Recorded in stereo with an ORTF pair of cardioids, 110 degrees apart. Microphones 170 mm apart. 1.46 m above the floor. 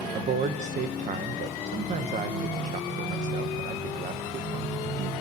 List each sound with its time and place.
0.1 s a man speaking: 50° right, 1.2 m